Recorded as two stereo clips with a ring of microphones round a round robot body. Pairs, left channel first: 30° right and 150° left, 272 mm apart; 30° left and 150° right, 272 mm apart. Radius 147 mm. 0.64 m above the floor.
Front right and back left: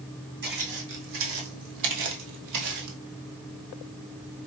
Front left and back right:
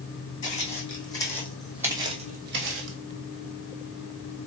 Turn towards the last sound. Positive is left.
turn(degrees=-175)